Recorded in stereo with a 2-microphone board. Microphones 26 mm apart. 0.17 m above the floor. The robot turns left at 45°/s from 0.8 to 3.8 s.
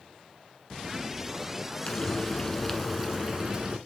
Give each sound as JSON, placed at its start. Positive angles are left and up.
{"t": 1.9, "sound": "frying", "azimuth_deg": 50, "distance_m": 1.1}